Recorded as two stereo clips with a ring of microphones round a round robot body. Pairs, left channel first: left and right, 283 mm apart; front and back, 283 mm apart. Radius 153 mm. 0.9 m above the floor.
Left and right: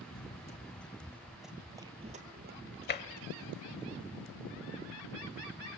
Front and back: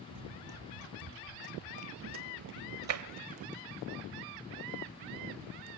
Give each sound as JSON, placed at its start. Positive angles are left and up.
{"t": 0.1, "sound": "running footsteps", "azimuth_deg": 150, "distance_m": 1.9}
{"t": 2.9, "sound": "tapping", "azimuth_deg": 145, "distance_m": 1.1}